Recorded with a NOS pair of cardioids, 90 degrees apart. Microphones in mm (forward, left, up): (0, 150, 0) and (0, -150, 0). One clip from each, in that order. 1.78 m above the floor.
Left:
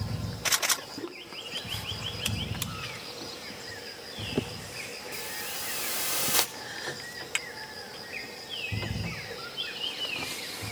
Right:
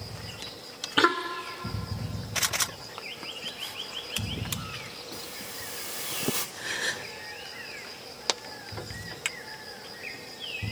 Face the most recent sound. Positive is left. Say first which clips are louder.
# right 6 dB
turn(degrees=-50)